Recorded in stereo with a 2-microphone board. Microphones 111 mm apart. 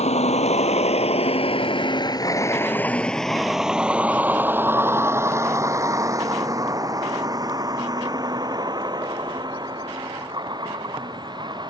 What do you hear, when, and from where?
0.0 s a vehicle: 80° left; by 11.7 s 45° right (ahead or behind)